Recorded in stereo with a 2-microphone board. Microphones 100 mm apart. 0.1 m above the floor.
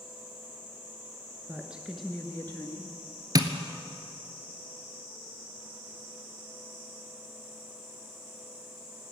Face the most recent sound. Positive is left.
turn(degrees=-40)  # may be behind; listen again after turning